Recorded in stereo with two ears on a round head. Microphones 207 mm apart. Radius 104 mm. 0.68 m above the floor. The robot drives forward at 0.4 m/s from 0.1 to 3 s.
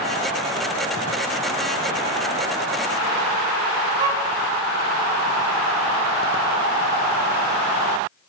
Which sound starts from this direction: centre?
A violin, at 4.0 s.